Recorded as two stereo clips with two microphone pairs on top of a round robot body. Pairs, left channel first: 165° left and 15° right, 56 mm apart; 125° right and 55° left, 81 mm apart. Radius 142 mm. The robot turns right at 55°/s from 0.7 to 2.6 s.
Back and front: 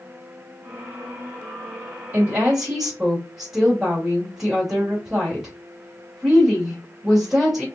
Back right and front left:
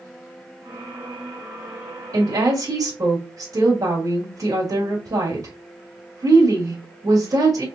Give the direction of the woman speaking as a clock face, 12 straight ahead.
11 o'clock.